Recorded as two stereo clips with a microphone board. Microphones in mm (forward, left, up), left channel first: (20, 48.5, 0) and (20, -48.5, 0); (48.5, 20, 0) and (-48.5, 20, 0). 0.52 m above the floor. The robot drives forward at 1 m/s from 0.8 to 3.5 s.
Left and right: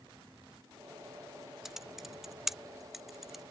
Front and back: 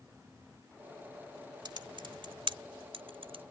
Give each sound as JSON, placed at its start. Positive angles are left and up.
{"t": 1.6, "sound": "typing on a keyboard", "azimuth_deg": -175}